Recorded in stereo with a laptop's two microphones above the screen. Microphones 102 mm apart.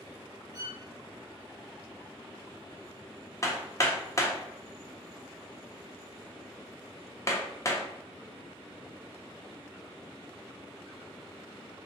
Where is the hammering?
30° left (ahead or behind), 0.5 m.